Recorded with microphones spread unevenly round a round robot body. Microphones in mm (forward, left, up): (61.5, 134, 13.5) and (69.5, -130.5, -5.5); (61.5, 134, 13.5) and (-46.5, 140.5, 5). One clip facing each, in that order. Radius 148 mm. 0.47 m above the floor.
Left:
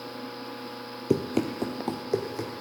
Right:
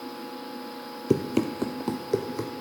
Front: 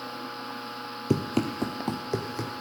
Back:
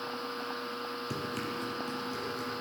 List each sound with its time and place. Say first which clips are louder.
1.1 s running footsteps: right 1 dB, front 13 dB; 10° right, 0.8 m; by 2.5 s 15° right, 1.5 m